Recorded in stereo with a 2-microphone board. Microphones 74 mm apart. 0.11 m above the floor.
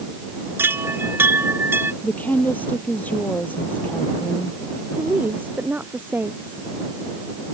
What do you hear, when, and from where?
0.6 s a chime: 30° right (ahead or behind)
2.0 s a woman speaking: 25° left (ahead or behind)
4.9 s a woman speaking: 25° right (ahead or behind)